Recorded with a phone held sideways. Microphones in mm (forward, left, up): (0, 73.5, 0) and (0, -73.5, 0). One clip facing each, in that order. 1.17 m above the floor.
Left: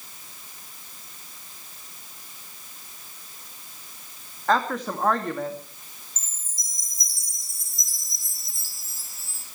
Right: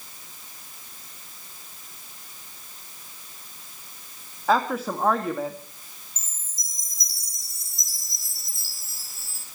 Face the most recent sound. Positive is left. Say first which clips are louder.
# even
turn(degrees=50)  # may be behind; listen again after turning